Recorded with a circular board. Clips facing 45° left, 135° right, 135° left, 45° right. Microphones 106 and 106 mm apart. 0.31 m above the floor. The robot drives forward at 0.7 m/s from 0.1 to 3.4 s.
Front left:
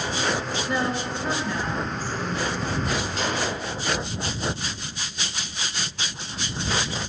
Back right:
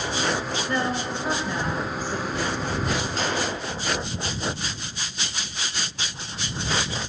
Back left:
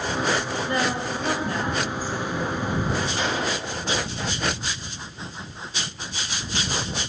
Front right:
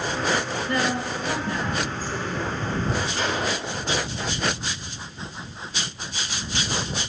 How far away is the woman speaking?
About 0.9 m.